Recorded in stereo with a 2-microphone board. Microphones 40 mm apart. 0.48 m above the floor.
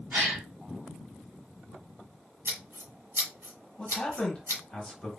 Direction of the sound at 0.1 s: 65° right (ahead or behind).